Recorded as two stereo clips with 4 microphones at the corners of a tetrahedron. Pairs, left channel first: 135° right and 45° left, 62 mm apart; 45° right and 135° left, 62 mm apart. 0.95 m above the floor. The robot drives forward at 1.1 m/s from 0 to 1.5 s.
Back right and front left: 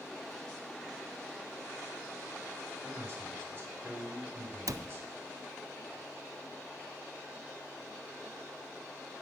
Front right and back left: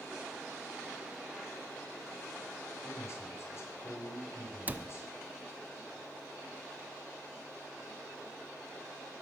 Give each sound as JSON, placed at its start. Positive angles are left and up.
{"t": 2.8, "sound": "a man speaking", "azimuth_deg": -10, "distance_m": 4.0}
{"t": 4.7, "sound": "a cupboard door", "azimuth_deg": 70, "distance_m": 0.6}